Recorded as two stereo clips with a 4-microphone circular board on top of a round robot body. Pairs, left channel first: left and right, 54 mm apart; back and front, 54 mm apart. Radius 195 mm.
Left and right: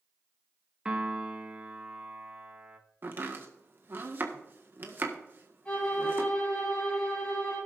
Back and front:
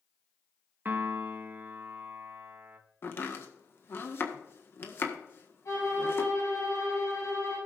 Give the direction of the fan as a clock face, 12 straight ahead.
I don't hear a fan.